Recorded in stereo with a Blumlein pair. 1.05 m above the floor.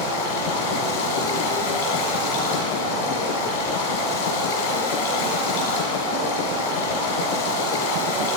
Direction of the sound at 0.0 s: 55° left.